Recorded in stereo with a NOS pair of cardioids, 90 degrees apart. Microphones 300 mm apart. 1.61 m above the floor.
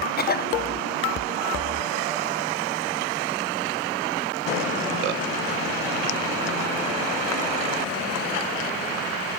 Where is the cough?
30° left, 0.8 m.